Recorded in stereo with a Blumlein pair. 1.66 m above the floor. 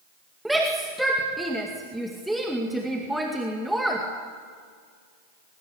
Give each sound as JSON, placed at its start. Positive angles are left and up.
{"t": 0.5, "sound": "a shout", "azimuth_deg": -5, "distance_m": 2.0}